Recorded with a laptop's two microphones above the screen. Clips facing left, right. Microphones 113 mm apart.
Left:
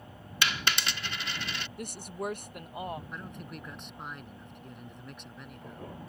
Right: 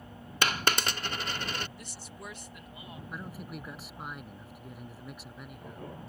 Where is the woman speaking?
55° left (ahead or behind).